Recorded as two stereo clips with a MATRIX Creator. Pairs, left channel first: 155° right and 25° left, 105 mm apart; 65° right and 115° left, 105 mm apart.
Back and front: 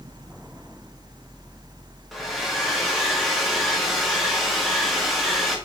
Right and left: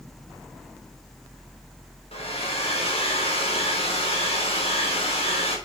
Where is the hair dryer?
65° right, 2.0 m.